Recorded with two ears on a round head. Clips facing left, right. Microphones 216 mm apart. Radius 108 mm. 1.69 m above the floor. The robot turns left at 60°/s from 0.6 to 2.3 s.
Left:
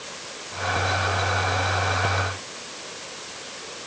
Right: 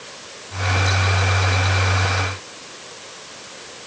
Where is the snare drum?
No snare drum in this recording.